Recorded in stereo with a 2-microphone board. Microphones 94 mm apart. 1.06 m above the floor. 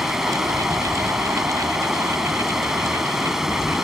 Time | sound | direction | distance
0.0 | running water | 5° right (ahead or behind) | ?